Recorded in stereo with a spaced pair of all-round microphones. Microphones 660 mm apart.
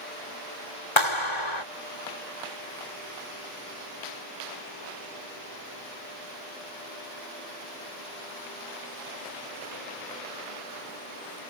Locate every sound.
1.0 s a clap: 45° left (ahead or behind)